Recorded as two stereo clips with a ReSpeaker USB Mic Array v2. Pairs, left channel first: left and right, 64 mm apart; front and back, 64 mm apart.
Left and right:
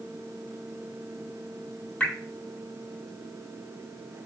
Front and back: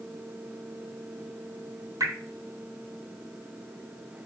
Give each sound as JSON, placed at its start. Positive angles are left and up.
{"t": 2.0, "sound": "dripping", "azimuth_deg": 160, "distance_m": 2.5}